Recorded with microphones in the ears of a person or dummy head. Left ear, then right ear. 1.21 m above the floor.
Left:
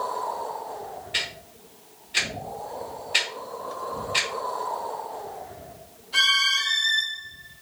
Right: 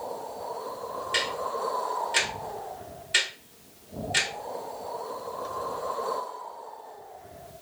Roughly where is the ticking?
Right.